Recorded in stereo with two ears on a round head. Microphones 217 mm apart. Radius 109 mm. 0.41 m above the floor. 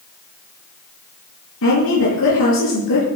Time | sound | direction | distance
1.6 | a woman speaking | 60° left (ahead or behind) | 9 m